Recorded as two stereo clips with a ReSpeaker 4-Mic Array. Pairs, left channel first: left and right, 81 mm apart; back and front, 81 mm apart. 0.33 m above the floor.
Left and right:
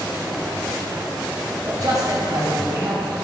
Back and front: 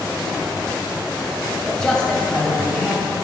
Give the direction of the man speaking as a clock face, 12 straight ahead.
3 o'clock.